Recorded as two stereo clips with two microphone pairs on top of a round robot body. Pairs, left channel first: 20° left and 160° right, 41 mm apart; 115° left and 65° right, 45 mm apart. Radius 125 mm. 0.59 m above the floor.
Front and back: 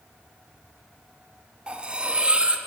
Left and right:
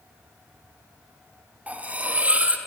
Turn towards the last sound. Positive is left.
turn(degrees=-105)